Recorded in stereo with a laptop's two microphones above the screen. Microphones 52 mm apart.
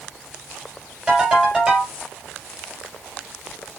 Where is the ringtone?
20° right (ahead or behind), 5 m.